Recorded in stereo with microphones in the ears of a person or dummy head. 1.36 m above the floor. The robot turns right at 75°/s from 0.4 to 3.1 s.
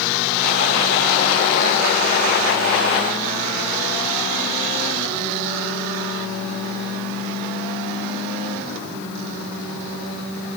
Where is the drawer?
No drawer in this recording.